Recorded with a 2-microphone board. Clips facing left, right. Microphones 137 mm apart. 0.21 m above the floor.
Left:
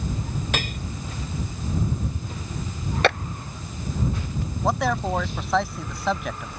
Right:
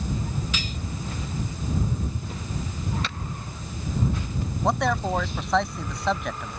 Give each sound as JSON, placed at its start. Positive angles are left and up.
{"t": 0.5, "sound": "cutlery clinking", "side_deg": 60}
{"t": 3.0, "sound": "a clap", "side_deg": 70}
{"t": 4.6, "sound": "a man speaking", "side_deg": 0}